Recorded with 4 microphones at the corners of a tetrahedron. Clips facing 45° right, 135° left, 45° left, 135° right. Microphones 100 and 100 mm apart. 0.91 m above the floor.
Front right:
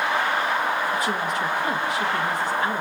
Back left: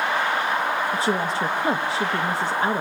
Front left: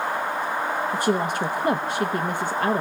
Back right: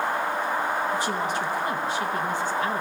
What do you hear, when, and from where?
0.9 s a woman speaking: 80° left, 0.9 m